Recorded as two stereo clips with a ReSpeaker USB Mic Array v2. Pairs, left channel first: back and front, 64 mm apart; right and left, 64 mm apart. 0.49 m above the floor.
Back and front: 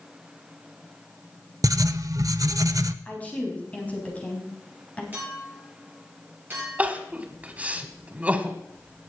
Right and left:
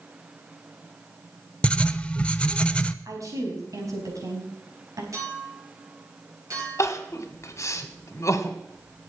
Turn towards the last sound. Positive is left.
turn(degrees=-65)